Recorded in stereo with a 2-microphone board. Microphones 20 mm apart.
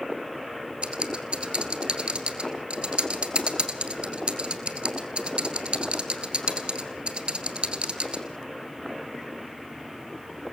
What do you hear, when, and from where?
0.8 s typing on a keyboard: 60° right (ahead or behind), 2 m